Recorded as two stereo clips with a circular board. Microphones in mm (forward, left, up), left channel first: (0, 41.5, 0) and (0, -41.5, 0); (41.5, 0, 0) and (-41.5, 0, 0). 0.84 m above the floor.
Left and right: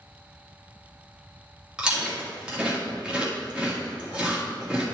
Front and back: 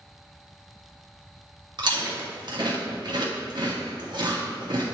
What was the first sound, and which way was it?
Chewing, 165° right.